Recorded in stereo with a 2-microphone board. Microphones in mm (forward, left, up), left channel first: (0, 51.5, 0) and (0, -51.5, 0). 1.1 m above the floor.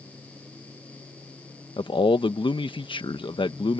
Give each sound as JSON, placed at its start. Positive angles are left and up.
{"t": 1.8, "sound": "a man speaking", "side_deg": 55}